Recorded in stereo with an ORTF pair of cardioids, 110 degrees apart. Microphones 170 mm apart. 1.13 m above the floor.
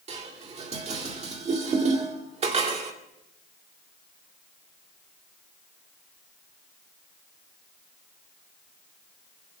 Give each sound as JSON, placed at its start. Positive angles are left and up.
{"t": 0.1, "sound": "dishes clattering", "azimuth_deg": -40, "distance_m": 2.0}